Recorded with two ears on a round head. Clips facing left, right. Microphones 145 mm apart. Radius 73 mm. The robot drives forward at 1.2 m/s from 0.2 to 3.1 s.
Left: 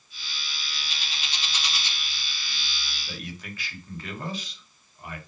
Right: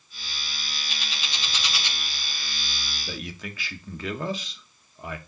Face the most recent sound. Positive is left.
turn(degrees=-70)  # may be behind; listen again after turning